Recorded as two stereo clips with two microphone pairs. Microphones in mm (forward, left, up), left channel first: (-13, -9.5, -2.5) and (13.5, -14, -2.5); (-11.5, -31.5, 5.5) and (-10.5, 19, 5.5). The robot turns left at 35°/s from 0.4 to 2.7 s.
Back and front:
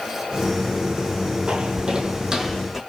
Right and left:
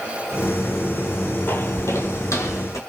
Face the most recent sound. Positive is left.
turn(degrees=-90)